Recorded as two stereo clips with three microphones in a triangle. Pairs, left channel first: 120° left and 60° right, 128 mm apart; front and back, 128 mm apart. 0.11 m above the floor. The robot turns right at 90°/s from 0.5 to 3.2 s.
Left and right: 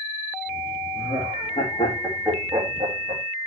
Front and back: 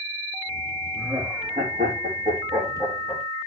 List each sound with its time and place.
0.9 s laughter: 100° left, 3.5 m; by 3.2 s 60° right, 3.5 m